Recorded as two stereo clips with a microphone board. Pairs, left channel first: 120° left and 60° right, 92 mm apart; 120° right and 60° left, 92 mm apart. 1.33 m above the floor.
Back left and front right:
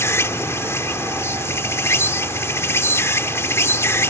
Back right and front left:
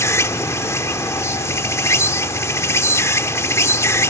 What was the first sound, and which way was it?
An insect, straight behind.